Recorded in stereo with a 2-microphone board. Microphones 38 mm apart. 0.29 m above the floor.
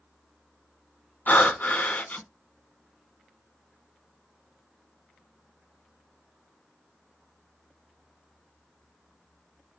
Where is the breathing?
50° left (ahead or behind), 0.5 m.